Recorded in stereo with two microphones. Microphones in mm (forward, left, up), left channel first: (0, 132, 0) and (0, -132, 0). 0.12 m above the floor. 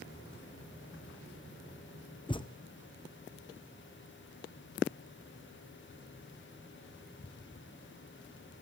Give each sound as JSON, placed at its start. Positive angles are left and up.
{"t": 2.3, "sound": "a thud", "side_deg": 20, "distance_m": 0.7}